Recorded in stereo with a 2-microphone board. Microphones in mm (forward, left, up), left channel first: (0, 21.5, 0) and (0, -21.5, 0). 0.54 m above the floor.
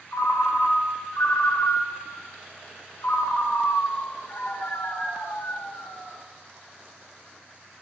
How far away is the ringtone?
About 1.1 m.